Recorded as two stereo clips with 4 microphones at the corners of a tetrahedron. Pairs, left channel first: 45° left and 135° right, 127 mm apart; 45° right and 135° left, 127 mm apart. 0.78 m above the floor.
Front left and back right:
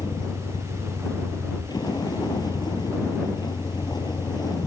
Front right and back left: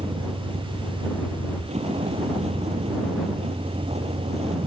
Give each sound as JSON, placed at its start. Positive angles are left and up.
{"t": 0.0, "sound": "a vehicle", "azimuth_deg": 105}